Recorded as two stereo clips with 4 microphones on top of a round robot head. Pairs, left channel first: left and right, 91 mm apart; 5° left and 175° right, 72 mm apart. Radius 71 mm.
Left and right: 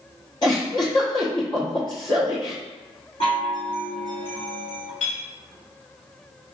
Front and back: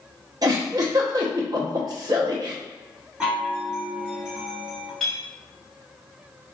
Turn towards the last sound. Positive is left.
turn(degrees=85)